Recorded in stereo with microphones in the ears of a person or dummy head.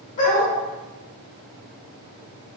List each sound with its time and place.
0.2 s a dog barking: 25° left (ahead or behind), 1.1 m